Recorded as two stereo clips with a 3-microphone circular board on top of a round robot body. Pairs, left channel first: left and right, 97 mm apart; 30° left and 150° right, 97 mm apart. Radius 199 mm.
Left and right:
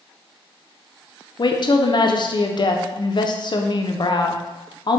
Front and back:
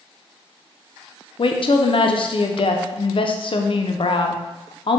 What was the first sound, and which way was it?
A woman speaking, 55° left.